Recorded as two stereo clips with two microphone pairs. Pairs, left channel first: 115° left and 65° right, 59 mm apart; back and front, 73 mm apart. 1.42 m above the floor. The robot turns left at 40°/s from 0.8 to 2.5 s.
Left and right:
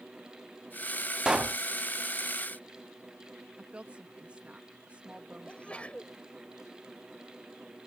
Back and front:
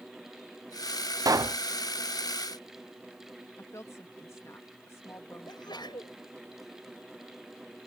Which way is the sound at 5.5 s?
175° right.